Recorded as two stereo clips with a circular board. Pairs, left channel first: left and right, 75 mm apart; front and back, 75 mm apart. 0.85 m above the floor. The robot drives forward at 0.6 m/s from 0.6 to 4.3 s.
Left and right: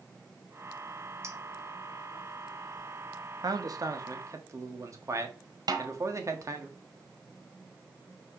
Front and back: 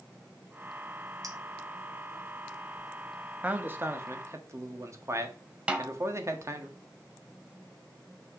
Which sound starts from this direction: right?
A snare drum, at 5.7 s.